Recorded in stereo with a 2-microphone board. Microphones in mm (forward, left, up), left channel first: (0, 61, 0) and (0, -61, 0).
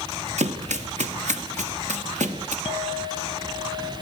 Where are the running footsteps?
70° right (ahead or behind), 1.8 m; by 2.5 s 85° right, 4 m.